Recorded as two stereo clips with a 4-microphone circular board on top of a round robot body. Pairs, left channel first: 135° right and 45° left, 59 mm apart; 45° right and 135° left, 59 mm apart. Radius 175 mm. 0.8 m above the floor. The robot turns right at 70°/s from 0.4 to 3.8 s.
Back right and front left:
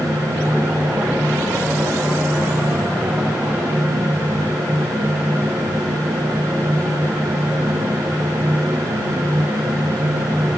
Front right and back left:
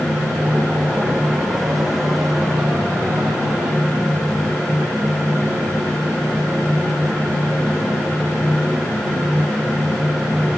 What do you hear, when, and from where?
Only background noise.